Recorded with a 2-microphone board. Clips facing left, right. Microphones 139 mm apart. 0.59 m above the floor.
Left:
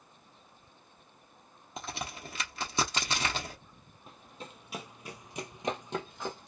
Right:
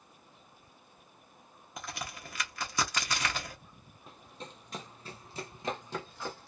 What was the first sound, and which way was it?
A crack, 25° left (ahead or behind).